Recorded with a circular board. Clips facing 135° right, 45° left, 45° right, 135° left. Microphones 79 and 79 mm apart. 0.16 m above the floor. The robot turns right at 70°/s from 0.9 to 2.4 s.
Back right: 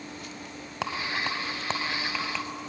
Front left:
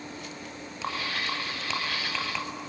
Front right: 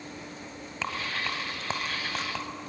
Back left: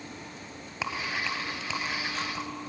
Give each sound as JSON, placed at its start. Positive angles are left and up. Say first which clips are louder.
{"t": 0.8, "sound": "a rattle", "louder": "back right 2 dB, even", "azimuth_deg": -145, "distance_m": 1.8}